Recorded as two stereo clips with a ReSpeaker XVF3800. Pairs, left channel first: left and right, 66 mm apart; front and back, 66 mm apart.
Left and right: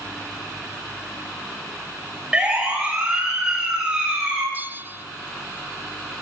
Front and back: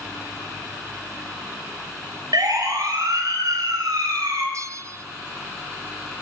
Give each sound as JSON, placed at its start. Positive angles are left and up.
{"t": 2.3, "sound": "a siren", "azimuth_deg": -165, "distance_m": 7.5}
{"t": 4.5, "sound": "a bell", "azimuth_deg": -150, "distance_m": 1.0}